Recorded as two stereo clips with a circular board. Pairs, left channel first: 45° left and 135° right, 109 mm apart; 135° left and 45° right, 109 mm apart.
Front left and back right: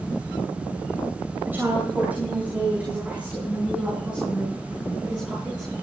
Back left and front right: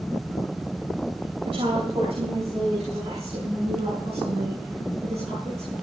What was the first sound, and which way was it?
A woman speaking, 65° right.